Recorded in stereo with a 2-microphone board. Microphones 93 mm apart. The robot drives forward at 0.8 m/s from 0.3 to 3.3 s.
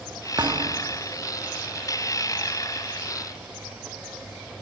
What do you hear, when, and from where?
0.4 s a thud: 50° right (ahead or behind), 1.2 m; by 1.0 s 45° right (ahead or behind), 1.3 m